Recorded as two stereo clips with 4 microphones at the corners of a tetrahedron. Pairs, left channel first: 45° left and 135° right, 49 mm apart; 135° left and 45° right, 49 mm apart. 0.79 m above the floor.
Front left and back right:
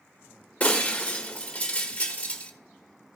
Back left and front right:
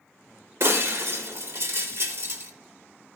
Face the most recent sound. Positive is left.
turn(degrees=-15)